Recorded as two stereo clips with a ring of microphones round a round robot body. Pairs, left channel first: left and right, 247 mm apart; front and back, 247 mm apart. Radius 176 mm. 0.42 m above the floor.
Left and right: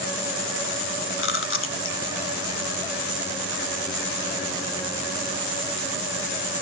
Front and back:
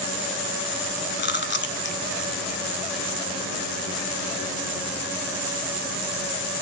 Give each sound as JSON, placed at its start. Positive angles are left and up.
{"t": 1.2, "sound": "chewing", "azimuth_deg": 50, "distance_m": 0.9}